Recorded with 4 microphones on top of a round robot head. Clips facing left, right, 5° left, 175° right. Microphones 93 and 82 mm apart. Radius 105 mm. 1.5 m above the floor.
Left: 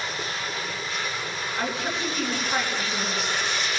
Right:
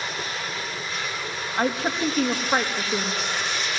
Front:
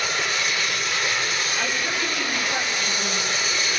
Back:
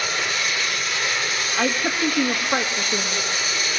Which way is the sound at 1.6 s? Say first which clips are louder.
Right 6 dB, back 8 dB; 140° right.